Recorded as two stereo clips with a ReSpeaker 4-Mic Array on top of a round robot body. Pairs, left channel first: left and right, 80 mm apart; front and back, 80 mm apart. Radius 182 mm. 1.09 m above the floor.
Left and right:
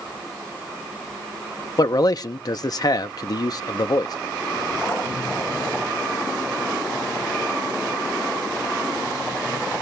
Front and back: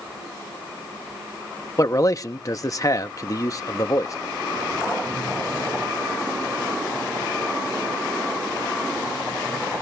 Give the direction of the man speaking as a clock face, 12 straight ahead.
10 o'clock.